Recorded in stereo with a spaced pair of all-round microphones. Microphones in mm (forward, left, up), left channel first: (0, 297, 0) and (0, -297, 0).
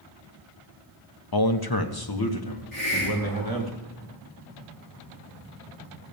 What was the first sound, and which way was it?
A man speaking, 40° left (ahead or behind).